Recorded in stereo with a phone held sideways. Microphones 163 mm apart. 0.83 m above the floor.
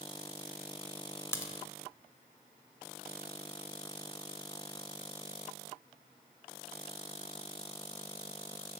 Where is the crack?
15° left (ahead or behind), 0.6 m.